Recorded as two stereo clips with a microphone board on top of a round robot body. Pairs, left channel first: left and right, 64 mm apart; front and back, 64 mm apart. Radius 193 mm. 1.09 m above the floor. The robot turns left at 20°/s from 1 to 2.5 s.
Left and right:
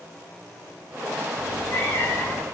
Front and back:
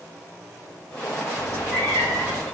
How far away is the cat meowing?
About 1.7 m.